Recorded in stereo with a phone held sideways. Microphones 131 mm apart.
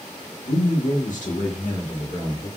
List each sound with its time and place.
0.5 s a man speaking: 80° left, 0.7 m; by 2.5 s 75° left (ahead or behind), 1.8 m